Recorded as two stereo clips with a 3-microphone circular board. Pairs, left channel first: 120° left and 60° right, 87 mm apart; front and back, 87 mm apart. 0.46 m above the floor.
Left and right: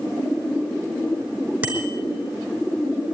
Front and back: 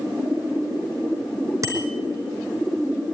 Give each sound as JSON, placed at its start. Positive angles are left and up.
{"t": 1.6, "sound": "a bicycle bell", "azimuth_deg": -135, "distance_m": 4.5}